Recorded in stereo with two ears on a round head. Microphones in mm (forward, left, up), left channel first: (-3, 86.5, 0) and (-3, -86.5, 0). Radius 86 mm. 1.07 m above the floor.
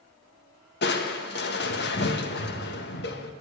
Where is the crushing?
55° left (ahead or behind), 1.4 m.